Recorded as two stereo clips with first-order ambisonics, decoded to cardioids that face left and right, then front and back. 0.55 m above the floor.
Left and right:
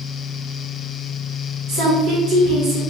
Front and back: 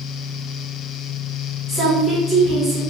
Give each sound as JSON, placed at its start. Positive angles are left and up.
{"t": 1.7, "sound": "a woman speaking", "azimuth_deg": -100, "distance_m": 1.6}